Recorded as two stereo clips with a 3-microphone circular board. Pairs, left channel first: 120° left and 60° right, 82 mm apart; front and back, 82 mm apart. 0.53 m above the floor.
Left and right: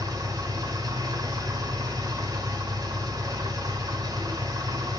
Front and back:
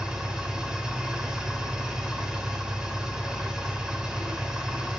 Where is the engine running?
100° right, 2.5 m.